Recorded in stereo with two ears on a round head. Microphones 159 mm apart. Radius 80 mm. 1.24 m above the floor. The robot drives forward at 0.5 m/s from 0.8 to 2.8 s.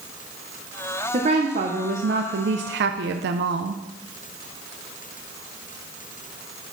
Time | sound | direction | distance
1.1 | a woman speaking | 35° right (ahead or behind) | 0.9 m